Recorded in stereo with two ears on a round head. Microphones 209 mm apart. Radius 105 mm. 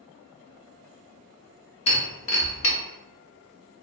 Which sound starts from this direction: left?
Breaking glass, at 1.9 s.